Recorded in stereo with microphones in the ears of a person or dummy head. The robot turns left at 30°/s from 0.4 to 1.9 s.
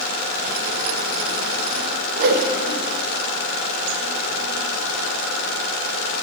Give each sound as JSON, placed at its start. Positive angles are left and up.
{"t": 2.2, "sound": "a whoosh", "side_deg": -60, "distance_m": 0.7}